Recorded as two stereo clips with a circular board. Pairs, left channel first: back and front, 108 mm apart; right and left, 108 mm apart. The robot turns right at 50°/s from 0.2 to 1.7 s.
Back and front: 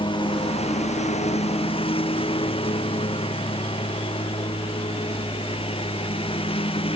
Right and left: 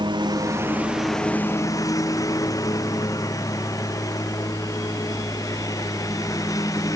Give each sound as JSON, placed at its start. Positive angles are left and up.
{"t": 0.0, "sound": "a lawn mower", "azimuth_deg": 135}